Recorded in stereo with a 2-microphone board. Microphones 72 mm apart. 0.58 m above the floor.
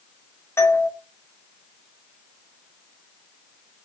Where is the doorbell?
35° left (ahead or behind), 2 m.